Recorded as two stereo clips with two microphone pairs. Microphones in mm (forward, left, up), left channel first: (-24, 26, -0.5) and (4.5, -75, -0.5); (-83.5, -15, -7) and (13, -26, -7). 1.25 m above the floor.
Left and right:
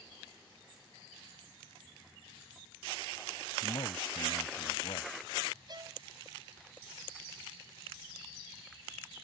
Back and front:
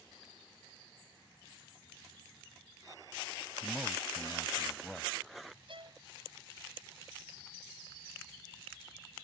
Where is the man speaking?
80° left.